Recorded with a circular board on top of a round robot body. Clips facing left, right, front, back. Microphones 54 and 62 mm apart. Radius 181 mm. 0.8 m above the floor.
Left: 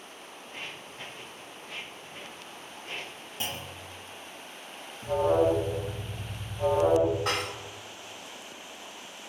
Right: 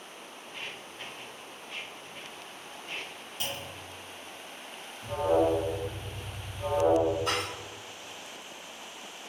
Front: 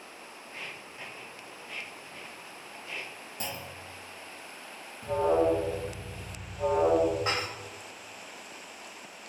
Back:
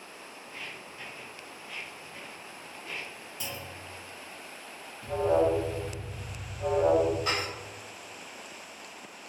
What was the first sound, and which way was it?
Footsteps, 50° left.